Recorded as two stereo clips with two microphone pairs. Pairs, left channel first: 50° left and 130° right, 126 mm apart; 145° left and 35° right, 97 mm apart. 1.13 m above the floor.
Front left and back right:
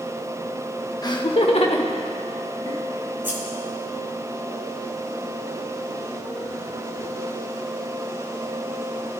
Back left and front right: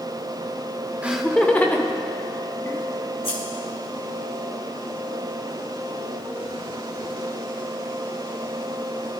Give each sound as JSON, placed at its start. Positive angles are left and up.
{"t": 1.0, "sound": "laughter", "azimuth_deg": 30, "distance_m": 0.6}
{"t": 3.2, "sound": "scissors", "azimuth_deg": 155, "distance_m": 5.0}